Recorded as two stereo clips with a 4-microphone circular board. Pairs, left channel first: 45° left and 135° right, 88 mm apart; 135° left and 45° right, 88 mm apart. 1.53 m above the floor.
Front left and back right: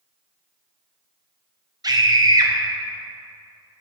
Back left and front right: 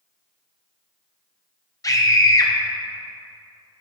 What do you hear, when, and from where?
1.8 s a scream: straight behind, 0.8 m